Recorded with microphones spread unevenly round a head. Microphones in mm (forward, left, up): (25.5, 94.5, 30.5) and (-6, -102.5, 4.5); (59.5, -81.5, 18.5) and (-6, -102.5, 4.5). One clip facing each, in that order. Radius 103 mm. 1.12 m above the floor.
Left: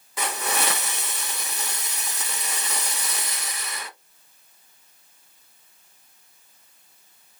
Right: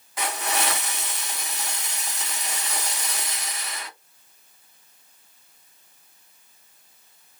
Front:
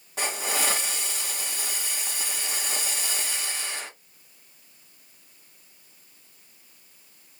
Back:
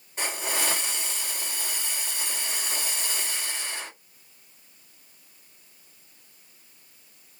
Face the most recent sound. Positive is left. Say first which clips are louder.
# even, front 1 dB
turn(degrees=75)